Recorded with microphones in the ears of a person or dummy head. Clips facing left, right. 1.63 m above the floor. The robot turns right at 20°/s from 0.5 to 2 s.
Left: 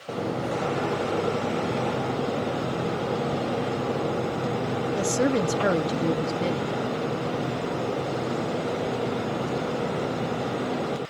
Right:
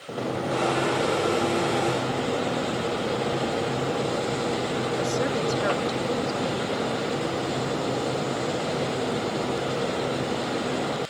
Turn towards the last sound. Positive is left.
turn(degrees=40)  # may be behind; listen again after turning